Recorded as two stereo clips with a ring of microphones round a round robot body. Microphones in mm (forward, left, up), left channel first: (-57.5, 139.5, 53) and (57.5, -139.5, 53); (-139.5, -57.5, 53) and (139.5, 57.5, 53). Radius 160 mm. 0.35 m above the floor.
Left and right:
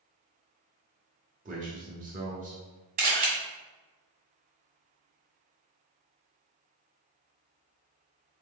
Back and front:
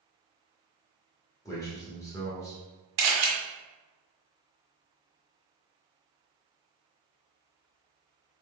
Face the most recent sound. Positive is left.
turn(degrees=-5)